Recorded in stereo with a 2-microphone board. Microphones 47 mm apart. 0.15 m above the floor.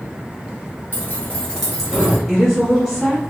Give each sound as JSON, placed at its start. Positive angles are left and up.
{"t": 0.9, "sound": "keys jangling", "side_deg": 40, "distance_m": 1.4}
{"t": 2.3, "sound": "a woman speaking", "side_deg": -5, "distance_m": 1.2}